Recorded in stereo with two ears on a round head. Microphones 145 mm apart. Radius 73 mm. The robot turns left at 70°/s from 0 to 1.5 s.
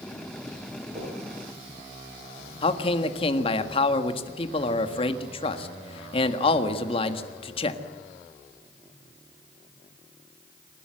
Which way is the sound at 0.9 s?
40° right (ahead or behind).